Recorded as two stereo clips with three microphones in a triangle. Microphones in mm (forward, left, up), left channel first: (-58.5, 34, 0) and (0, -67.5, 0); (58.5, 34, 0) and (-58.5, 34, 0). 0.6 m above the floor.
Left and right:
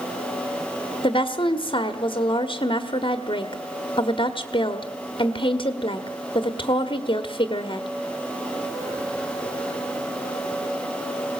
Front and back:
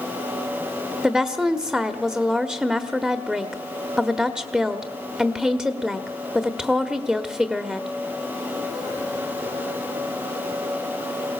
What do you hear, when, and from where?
1.0 s a woman speaking: 100° left, 1.3 m